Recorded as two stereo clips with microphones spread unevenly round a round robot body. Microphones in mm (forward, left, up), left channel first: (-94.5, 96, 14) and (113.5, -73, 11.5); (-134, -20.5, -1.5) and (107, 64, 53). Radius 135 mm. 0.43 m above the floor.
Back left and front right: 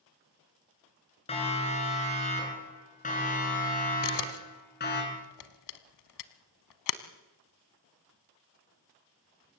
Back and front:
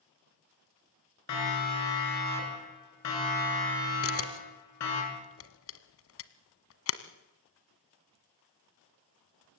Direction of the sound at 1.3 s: 150° right.